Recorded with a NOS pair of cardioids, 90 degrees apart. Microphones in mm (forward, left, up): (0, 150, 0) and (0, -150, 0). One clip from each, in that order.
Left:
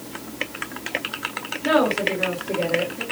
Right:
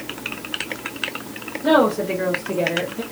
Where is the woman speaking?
35° right, 1.6 m; by 3.0 s 60° right, 1.2 m.